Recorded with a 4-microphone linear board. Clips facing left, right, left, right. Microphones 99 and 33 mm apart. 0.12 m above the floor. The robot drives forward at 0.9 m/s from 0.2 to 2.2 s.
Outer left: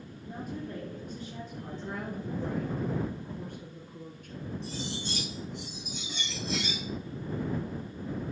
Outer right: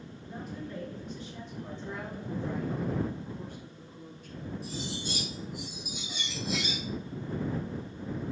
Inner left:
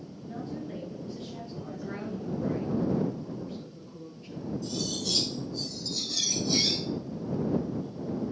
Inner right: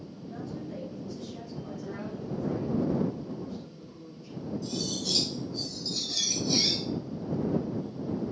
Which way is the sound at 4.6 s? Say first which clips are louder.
Even, even; 5° right (ahead or behind).